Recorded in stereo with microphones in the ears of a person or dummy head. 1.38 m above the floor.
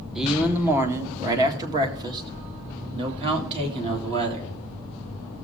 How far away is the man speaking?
About 1.1 m.